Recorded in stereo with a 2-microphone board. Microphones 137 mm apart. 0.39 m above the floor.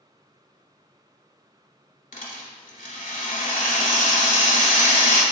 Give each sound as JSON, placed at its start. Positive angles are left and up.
{"t": 2.1, "sound": "a rattle", "side_deg": 80, "distance_m": 0.8}